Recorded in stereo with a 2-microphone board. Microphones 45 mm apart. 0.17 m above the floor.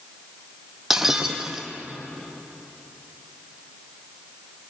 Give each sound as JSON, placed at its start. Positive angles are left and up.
{"t": 0.9, "sound": "breaking glass", "side_deg": -5, "distance_m": 2.0}